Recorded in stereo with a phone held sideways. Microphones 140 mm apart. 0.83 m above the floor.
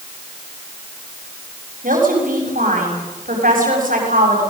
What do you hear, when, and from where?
1.8 s a woman speaking: 80° right, 6 m